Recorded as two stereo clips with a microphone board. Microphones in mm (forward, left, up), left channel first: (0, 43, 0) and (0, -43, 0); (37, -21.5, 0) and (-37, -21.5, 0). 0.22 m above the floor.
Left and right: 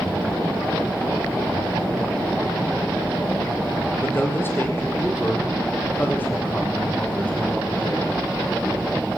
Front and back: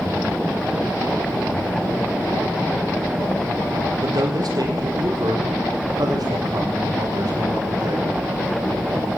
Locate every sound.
4.0 s a man speaking: 155° left, 6 m; by 8.1 s 160° left, 8 m